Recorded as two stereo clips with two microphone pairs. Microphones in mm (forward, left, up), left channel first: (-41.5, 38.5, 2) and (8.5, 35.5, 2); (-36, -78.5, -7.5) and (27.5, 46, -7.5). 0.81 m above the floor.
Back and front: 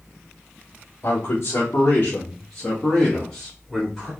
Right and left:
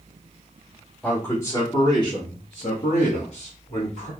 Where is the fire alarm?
I don't hear a fire alarm.